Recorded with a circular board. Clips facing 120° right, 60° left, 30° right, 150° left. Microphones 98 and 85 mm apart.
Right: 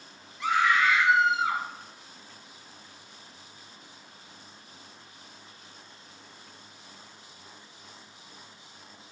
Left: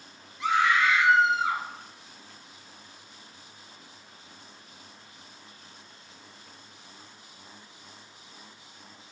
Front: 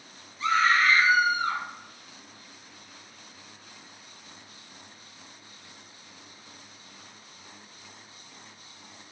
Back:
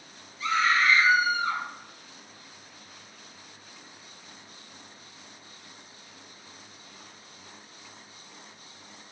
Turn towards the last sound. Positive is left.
turn(degrees=-35)